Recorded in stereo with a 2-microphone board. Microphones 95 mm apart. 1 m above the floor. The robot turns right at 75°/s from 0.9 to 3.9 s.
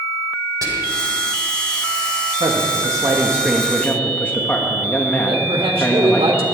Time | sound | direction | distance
0.6 | whispering | 40° right (ahead or behind) | 4 m
2.4 | a man speaking | 90° right | 1.7 m
5.3 | a man speaking | 80° right | 3 m